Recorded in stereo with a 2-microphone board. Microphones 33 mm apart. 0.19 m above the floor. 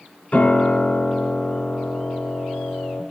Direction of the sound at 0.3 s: 50° left (ahead or behind).